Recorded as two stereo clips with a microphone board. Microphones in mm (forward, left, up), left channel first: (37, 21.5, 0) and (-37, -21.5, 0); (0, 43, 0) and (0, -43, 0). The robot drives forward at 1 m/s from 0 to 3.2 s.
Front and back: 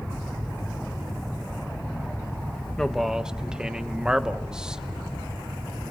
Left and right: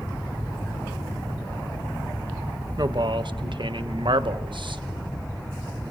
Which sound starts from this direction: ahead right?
A man speaking, at 2.8 s.